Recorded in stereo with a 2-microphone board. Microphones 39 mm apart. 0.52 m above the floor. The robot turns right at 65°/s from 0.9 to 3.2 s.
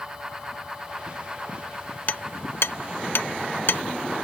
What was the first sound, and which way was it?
Hammering, 40° left (ahead or behind).